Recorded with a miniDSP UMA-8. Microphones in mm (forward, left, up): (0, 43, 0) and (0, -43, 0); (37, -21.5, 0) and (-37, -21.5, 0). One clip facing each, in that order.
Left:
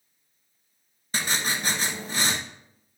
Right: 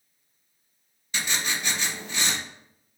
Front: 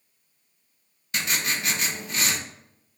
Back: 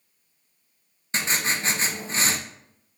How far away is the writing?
About 1.0 m.